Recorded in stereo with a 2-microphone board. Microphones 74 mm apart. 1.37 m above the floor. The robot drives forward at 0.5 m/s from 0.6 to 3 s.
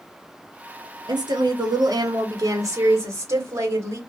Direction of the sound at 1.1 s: 70° right (ahead or behind).